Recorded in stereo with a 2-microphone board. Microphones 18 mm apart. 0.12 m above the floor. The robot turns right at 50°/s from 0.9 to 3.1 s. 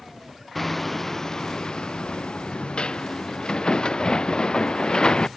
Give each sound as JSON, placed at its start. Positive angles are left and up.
{"t": 0.6, "sound": "hammering", "azimuth_deg": 20}